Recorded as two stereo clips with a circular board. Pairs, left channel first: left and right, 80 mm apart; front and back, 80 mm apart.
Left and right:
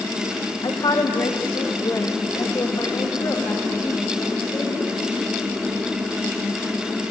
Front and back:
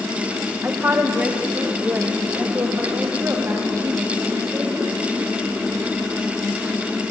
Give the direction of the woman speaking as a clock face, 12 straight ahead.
8 o'clock.